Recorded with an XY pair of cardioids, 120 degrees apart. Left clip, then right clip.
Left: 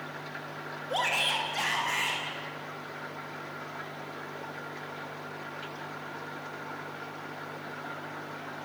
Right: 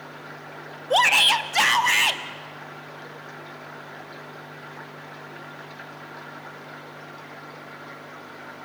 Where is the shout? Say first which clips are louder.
Right 11 dB; 60° right, 1.6 m; by 2.2 s 70° right, 2.5 m.